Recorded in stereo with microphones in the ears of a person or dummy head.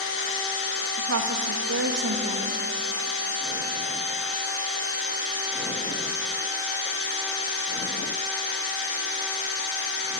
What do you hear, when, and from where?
1.0 s a woman speaking: 80° right, 2.5 m